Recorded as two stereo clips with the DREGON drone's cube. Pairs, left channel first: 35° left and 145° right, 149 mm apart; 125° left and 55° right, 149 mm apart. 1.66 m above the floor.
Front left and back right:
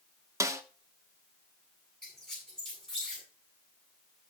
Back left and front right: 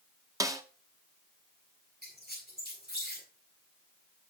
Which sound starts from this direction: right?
A snare drum, at 0.4 s.